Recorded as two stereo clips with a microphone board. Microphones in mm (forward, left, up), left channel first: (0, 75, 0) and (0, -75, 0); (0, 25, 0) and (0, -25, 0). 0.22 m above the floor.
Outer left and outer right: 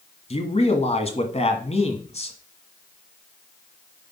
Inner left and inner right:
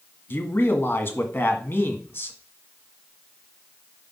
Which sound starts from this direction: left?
A man speaking, at 0.3 s.